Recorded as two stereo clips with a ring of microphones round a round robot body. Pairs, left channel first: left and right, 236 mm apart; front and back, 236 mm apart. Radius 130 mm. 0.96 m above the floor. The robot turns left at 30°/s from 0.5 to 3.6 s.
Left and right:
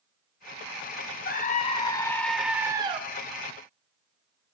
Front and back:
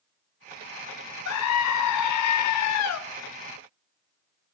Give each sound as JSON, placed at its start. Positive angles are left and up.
{"t": 1.2, "sound": "a scream", "azimuth_deg": 35, "distance_m": 0.9}